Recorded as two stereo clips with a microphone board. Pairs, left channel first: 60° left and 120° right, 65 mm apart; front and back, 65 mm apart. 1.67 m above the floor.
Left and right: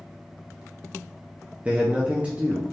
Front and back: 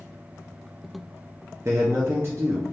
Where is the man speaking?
Straight behind, 0.5 m.